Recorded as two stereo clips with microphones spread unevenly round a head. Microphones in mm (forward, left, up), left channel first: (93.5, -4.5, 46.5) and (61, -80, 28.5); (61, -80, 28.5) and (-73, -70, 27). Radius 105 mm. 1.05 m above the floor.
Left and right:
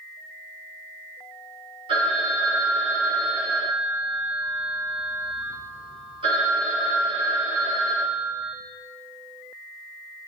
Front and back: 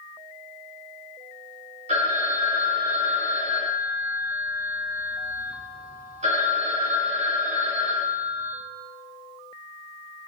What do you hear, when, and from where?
1.9 s a phone ringing: 150° right, 2.5 m